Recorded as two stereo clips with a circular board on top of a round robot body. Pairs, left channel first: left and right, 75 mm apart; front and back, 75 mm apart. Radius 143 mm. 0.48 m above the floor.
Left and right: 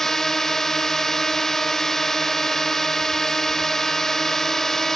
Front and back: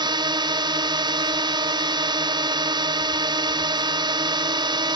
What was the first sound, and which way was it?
A drone, 175° left.